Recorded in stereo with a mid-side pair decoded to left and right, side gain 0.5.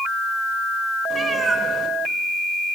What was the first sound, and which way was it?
A cat meowing, 45° right.